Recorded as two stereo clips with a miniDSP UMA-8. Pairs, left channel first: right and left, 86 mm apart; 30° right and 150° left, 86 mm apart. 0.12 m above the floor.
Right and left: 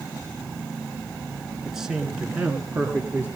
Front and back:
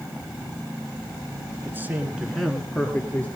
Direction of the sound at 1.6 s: 175° left.